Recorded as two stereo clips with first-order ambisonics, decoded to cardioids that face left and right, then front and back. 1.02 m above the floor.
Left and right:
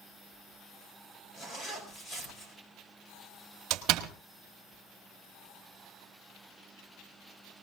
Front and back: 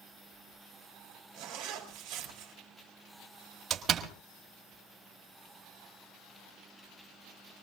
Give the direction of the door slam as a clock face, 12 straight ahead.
4 o'clock.